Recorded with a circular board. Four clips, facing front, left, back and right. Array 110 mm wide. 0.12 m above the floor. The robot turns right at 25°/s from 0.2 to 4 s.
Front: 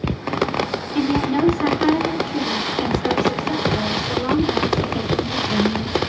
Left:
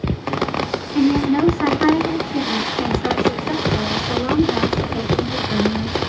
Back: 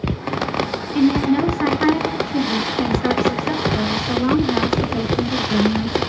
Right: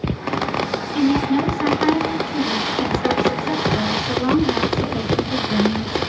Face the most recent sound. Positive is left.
turn(degrees=-175)